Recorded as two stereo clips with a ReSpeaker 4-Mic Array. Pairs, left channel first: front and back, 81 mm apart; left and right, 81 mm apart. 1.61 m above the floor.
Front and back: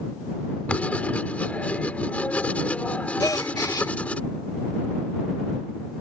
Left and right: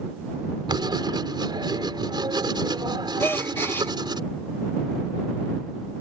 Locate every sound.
0.7 s writing: 75° right
3.2 s a gasp: 35° left